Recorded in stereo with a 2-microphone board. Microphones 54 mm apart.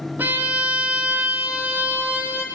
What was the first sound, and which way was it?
A violin, 35° right (ahead or behind).